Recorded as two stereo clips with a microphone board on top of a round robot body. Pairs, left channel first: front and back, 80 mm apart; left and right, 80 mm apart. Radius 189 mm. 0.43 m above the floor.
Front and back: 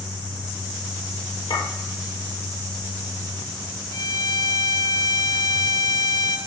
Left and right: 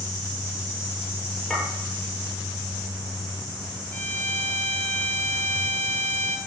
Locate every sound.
1.5 s a clink: 10° left, 9 m
3.9 s a violin: 25° left, 2 m